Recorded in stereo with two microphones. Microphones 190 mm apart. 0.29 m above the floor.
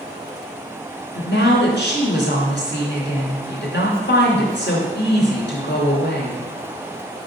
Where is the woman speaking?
60° left (ahead or behind), 3 m.